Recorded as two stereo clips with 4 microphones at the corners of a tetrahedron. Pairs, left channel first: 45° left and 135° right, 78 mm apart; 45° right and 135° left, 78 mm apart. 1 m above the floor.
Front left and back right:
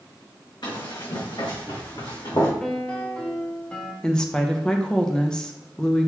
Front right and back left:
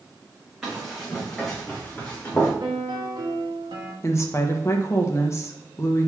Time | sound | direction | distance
0.6 | running footsteps | 50° left | 3.5 m
2.6 | a piano | 120° left | 1.2 m
4.0 | a woman speaking | 30° right | 0.9 m